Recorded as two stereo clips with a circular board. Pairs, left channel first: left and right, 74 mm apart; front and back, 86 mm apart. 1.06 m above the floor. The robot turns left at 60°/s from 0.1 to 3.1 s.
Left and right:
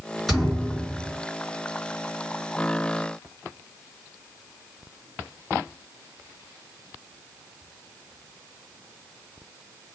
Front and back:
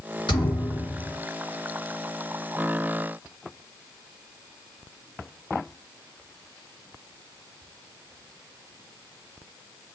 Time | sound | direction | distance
0.3 | a thud | straight ahead | 3.5 m